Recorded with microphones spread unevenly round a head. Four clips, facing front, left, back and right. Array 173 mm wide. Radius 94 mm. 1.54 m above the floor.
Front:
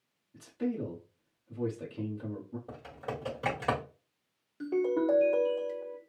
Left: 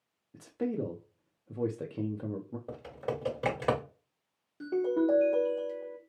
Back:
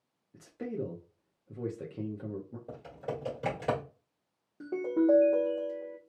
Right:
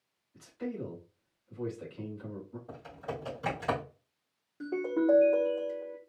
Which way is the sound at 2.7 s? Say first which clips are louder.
Left 5 dB, back 4 dB; 105° left.